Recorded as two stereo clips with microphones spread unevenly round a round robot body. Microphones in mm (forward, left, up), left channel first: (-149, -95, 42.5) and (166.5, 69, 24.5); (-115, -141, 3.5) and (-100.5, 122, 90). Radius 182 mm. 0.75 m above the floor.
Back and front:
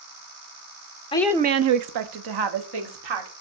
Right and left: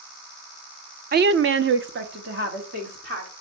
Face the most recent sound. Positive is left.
turn(degrees=15)